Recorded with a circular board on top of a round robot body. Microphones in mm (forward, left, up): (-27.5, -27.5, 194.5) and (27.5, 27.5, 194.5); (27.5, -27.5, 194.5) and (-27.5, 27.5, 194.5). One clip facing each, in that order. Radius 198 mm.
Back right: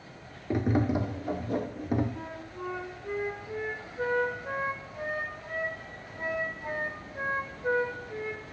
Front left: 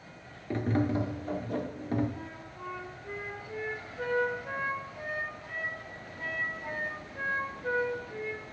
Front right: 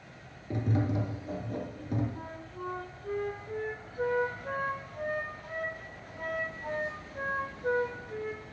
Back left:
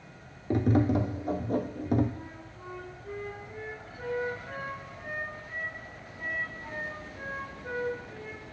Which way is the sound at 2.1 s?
70° right.